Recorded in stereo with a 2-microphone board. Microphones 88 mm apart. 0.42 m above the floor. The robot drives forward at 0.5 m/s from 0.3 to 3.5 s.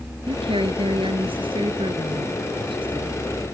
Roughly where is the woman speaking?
Right.